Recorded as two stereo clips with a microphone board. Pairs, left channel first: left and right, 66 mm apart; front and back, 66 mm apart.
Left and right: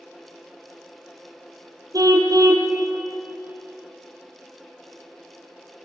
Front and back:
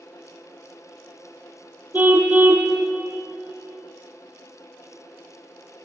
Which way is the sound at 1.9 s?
120° right.